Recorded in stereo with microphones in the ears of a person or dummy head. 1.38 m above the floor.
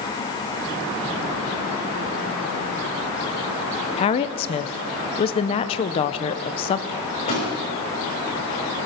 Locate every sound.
4.0 s a woman speaking: 30° left (ahead or behind), 0.7 m
6.9 s a microwave: 40° left (ahead or behind), 6 m